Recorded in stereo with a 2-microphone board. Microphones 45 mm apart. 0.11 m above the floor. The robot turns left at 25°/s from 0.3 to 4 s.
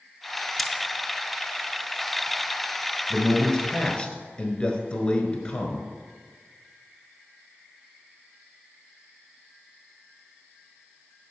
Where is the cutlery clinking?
Centre (ahead or behind), 0.7 m.